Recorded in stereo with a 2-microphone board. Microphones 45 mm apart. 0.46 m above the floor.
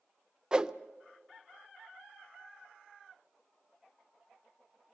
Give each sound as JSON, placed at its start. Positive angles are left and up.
{"t": 0.5, "sound": "a whoosh", "side_deg": -20, "distance_m": 0.5}